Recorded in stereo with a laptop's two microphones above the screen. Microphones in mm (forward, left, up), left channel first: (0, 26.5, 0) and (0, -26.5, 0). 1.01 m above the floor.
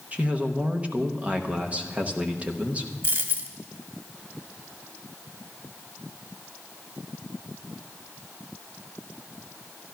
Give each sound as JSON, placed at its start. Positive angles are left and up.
{"t": 0.1, "sound": "a man speaking", "side_deg": -25, "distance_m": 0.9}
{"t": 3.0, "sound": "a dropped coin", "side_deg": -50, "distance_m": 1.8}